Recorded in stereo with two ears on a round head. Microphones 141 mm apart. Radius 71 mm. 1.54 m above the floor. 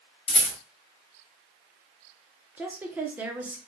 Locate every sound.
0.3 s a rattle: 35° left (ahead or behind), 1.6 m
2.6 s a woman speaking: 10° right (ahead or behind), 0.6 m